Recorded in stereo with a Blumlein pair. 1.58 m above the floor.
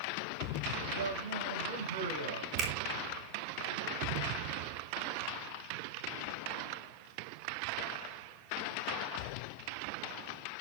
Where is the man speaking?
65° right, 7 m.